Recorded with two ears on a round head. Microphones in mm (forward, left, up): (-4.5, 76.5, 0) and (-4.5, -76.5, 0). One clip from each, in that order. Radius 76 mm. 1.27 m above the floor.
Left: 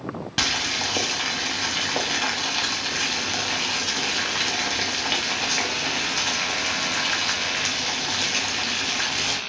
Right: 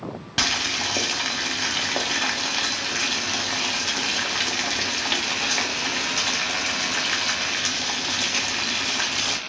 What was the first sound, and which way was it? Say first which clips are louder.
Boiling: right 1 dB; 5° right (ahead or behind).